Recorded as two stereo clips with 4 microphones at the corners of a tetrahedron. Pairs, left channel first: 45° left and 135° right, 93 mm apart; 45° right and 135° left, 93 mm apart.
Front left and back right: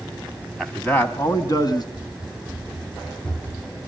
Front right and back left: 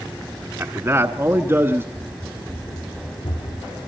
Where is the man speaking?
130° left, 1.3 m; by 1.8 s 75° left, 2 m.